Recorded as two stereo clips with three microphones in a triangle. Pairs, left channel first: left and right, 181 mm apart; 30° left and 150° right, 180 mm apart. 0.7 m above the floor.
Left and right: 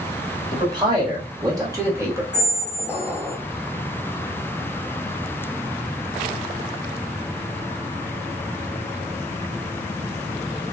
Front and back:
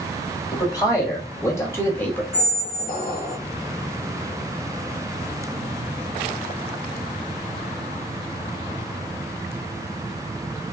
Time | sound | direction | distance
0.5 | a man speaking | 35° right | 1.8 m
2.3 | a squeak | 10° right | 1.3 m